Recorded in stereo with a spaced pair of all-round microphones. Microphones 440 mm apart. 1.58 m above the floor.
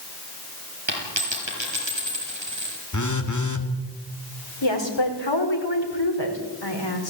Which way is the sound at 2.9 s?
40° left (ahead or behind).